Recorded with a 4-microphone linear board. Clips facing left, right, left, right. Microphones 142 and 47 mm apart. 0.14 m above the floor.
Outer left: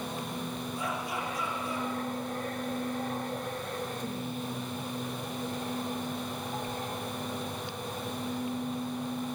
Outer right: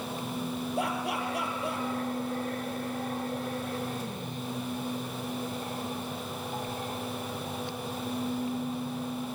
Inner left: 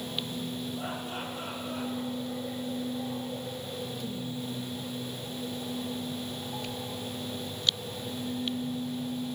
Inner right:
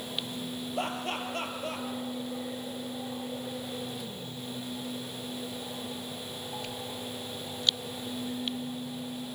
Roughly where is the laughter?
Right.